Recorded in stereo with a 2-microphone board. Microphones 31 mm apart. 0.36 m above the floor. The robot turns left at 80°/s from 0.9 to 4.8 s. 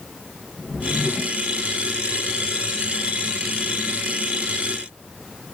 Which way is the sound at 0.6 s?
70° left.